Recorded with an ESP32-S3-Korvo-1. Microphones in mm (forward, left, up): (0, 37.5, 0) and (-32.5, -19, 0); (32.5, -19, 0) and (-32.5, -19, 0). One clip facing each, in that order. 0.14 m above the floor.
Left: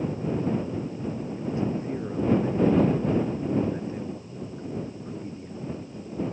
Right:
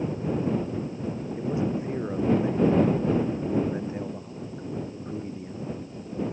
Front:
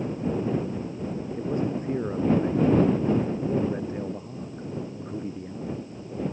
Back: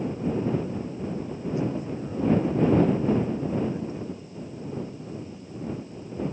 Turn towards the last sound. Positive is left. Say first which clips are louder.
# right 2 dB, front 2 dB
turn(degrees=-50)